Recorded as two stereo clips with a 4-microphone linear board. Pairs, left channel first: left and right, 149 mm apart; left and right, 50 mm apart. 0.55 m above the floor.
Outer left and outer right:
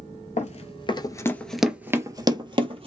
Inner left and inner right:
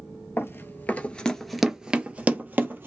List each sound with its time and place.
0.4 s running footsteps: 50° left (ahead or behind), 0.7 m; by 2.9 s 40° right (ahead or behind), 0.9 m